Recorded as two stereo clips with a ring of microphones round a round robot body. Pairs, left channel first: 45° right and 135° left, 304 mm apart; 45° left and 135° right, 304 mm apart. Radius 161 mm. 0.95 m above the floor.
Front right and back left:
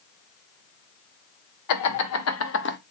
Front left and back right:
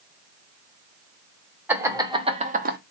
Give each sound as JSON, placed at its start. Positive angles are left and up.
{"t": 1.7, "sound": "laughter", "azimuth_deg": -50, "distance_m": 1.2}